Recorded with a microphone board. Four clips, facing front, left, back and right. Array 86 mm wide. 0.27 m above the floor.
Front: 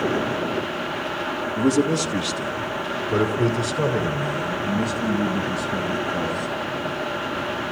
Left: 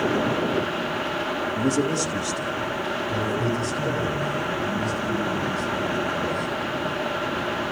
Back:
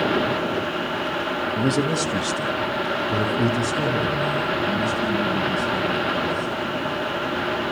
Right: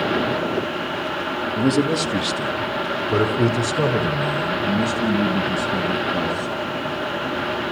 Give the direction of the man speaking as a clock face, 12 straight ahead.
5 o'clock.